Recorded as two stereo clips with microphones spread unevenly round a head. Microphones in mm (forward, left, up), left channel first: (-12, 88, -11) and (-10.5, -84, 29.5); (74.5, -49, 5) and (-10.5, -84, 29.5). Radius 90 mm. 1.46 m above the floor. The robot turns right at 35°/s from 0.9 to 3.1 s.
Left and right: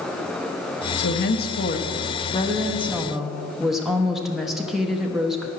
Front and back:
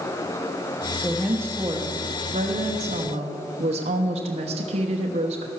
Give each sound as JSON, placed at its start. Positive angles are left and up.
{"t": 1.0, "sound": "a woman speaking", "azimuth_deg": 105, "distance_m": 1.1}